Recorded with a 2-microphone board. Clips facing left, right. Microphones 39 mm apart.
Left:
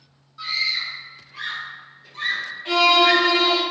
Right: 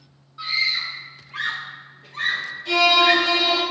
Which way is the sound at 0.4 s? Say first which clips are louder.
Right 2 dB; 20° right (ahead or behind).